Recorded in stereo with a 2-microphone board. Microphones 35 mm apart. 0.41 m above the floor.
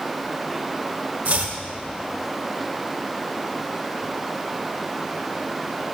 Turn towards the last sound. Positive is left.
turn(degrees=-55)  # may be behind; listen again after turning